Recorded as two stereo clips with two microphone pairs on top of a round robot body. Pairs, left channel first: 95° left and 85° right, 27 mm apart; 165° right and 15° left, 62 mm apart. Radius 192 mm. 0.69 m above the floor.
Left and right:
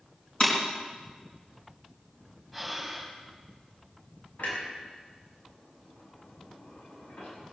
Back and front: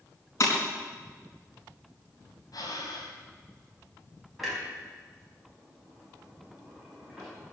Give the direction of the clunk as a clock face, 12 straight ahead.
9 o'clock.